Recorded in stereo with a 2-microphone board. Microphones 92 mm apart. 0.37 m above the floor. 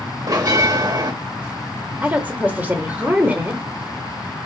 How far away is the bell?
About 0.7 m.